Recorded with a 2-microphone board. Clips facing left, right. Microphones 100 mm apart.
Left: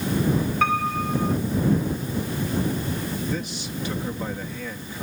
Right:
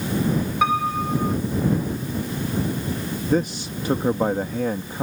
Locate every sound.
0.6 s a piano: 15° right (ahead or behind)
3.2 s a man speaking: 50° right (ahead or behind)